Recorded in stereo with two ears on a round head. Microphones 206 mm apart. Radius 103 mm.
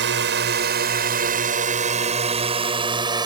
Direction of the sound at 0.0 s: 50° right (ahead or behind).